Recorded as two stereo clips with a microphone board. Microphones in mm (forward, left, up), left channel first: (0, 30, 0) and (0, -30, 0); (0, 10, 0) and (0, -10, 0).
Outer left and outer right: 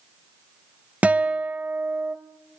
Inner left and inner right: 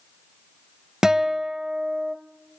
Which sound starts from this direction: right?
A guitar, at 1.0 s.